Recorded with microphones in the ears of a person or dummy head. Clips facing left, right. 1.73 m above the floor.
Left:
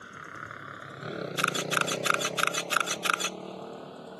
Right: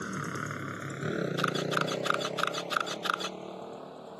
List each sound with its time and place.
0.0 s a motorcycle: 70° right (ahead or behind); by 4.2 s centre (ahead or behind)
1.4 s a camera shutter: 25° left (ahead or behind)